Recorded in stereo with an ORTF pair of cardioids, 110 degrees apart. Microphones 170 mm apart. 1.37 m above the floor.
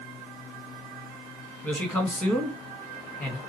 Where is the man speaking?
10° left, 1.3 m.